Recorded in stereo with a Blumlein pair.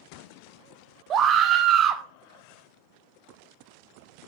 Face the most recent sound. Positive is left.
turn(degrees=-30)